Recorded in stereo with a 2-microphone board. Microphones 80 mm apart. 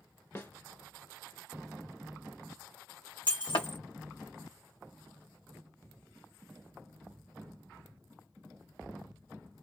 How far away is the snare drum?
About 0.8 m.